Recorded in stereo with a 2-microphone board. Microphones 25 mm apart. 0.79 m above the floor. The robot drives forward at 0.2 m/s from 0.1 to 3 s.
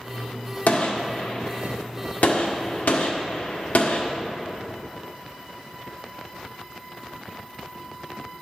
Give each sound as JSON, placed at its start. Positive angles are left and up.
{"t": 0.7, "sound": "a gunshot", "side_deg": 65, "distance_m": 1.0}